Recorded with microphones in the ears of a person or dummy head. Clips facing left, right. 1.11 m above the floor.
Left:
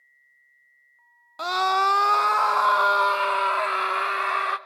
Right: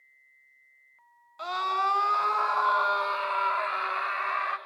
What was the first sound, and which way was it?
A scream, 55° left (ahead or behind).